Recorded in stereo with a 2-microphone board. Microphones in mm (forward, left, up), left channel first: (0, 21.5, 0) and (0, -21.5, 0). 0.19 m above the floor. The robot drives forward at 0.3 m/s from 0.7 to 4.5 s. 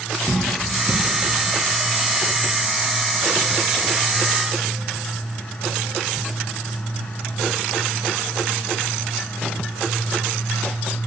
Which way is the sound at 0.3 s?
55° right (ahead or behind).